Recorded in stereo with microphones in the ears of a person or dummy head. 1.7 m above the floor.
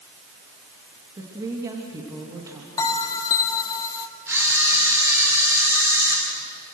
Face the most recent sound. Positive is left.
turn(degrees=-15)  # may be behind; listen again after turning